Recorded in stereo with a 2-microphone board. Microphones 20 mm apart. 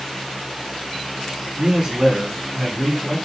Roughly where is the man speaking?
Right.